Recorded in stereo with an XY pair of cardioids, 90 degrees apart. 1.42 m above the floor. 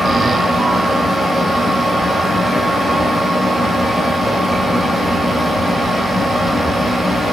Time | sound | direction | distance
0.0 | a fan | 5° right | 1.4 m